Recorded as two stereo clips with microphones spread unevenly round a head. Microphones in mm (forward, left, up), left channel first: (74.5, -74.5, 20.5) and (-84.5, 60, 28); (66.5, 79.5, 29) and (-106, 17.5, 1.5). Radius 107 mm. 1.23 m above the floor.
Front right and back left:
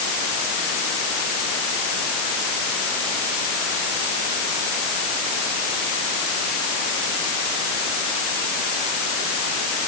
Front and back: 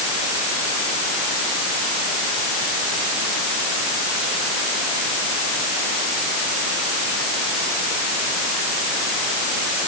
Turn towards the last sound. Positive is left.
No sound to turn to.